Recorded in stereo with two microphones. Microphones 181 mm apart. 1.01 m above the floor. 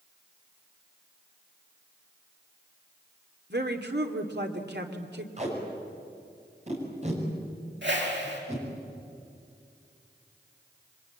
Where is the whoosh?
80° right, 5.5 m.